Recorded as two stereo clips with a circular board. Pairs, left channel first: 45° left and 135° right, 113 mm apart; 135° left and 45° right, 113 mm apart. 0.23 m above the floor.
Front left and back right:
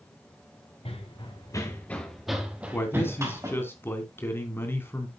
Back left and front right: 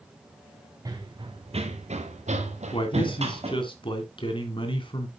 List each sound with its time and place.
0.8 s running footsteps: 10° left, 1.8 m; by 3.6 s 75° right, 3 m
2.7 s a man speaking: 110° left, 2.5 m